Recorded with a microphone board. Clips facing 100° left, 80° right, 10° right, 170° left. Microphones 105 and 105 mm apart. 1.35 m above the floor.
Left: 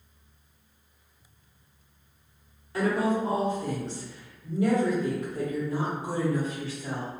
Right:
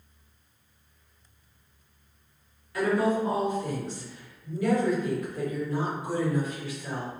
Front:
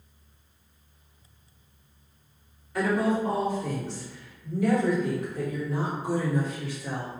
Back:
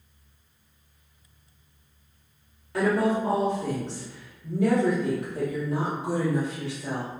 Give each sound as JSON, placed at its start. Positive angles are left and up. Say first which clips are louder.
{"t": 2.7, "sound": "a woman speaking", "louder": "right 1 dB, back 2 dB", "azimuth_deg": 160, "distance_m": 1.7}